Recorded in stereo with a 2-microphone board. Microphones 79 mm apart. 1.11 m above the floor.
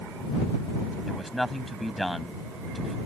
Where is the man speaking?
Centre (ahead or behind).